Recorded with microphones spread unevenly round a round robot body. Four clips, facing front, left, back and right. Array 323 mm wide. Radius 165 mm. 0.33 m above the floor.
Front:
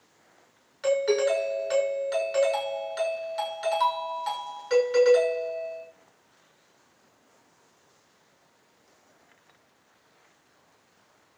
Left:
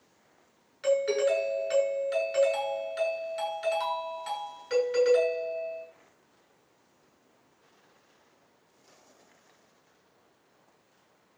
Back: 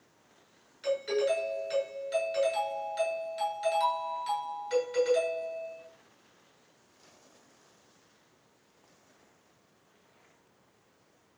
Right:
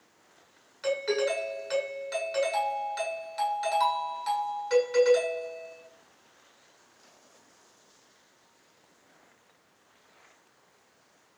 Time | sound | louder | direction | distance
0.8 | a doorbell | left 3 dB, front 6 dB | straight ahead | 6.5 m